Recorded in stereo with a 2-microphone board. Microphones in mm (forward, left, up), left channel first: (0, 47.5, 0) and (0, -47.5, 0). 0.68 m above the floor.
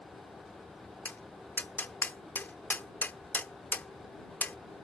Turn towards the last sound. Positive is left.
turn(degrees=20)  # may be behind; listen again after turning